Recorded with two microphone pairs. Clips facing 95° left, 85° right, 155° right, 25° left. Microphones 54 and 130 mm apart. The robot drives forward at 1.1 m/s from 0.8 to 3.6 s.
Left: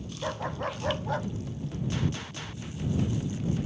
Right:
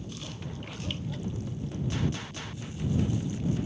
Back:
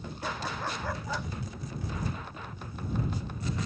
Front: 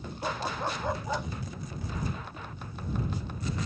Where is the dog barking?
90° left; by 1.3 s 95° left.